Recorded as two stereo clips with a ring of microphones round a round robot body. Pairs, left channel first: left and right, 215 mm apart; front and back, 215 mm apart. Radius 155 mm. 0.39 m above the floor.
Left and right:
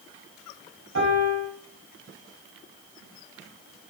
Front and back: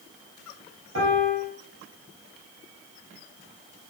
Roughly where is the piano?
Behind right.